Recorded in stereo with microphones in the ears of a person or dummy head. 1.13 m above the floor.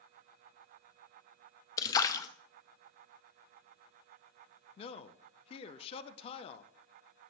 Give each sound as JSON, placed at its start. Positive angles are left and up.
{"t": 1.8, "sound": "a splash", "side_deg": 20, "distance_m": 0.6}
{"t": 4.8, "sound": "a man speaking", "side_deg": 30, "distance_m": 0.6}